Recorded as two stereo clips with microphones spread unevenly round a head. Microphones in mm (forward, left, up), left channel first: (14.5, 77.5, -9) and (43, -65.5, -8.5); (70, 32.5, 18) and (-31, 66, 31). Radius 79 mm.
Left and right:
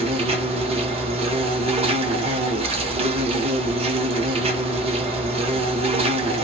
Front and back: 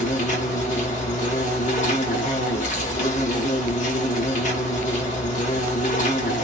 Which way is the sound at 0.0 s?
40° right.